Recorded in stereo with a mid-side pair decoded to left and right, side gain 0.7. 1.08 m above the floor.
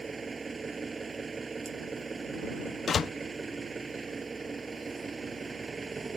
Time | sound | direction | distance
0.0 | an engine running | 20° right | ?
2.9 | a door slam | 35° left | ?